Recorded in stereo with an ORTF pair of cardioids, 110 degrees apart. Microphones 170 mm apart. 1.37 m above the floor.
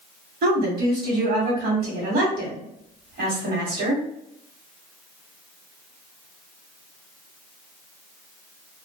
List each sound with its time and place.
0.4 s a woman speaking: 60° right, 1.4 m